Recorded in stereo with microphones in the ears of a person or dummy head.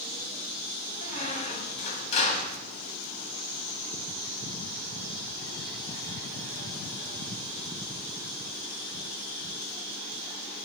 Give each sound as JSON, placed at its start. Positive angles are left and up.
{"t": 1.0, "sound": "a squeak", "side_deg": 40, "distance_m": 2.0}